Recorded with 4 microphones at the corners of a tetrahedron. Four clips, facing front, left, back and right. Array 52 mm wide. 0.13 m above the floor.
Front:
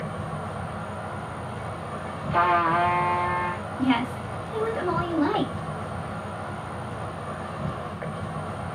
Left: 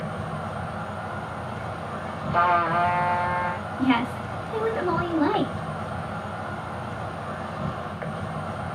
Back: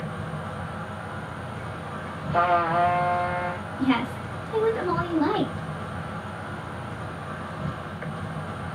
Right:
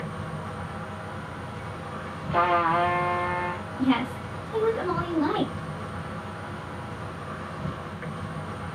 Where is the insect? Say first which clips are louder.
Left 3 dB, front 1 dB; 60° left, 1.2 m.